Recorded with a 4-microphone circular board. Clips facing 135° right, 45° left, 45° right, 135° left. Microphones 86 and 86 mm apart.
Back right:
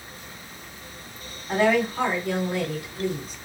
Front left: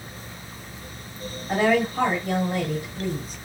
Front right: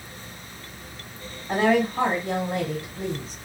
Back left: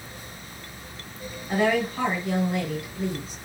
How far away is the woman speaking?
About 2 m.